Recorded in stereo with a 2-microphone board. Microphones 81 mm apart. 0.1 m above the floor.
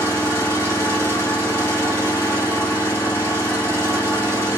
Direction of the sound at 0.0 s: 35° left (ahead or behind).